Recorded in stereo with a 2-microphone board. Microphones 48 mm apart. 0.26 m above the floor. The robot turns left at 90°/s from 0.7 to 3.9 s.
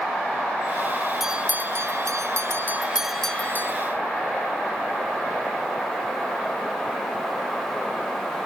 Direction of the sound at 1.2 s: 5° right.